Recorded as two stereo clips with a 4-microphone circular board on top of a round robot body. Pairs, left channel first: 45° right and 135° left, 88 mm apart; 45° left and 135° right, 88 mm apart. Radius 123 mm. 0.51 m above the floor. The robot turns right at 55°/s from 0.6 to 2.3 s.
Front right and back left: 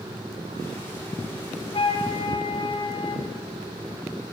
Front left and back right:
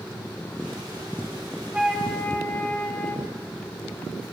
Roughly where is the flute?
Ahead right.